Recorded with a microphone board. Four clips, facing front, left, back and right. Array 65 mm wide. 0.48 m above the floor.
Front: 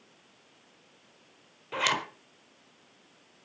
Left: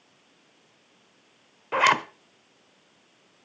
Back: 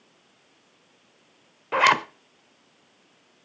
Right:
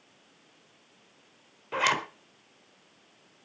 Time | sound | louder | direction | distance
1.7 | a zipper | left 6 dB, back 10 dB | 150° left | 1.2 m